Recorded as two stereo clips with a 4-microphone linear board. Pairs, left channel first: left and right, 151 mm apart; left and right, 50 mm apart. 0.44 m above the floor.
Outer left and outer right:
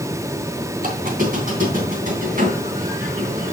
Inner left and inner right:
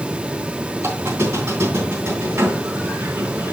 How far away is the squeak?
About 3 m.